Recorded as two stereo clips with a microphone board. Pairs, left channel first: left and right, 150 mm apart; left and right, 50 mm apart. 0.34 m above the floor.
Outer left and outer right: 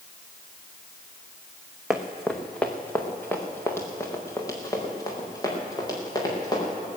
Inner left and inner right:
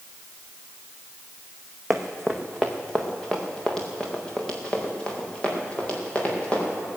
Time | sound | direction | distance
1.9 | running footsteps | 5° right (ahead or behind) | 1.3 m